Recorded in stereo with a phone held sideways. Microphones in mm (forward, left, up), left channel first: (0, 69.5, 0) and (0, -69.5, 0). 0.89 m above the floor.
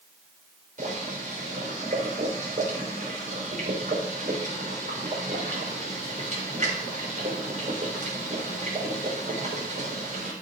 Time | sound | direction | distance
0.8 | boiling | 60° right (ahead or behind) | 4 m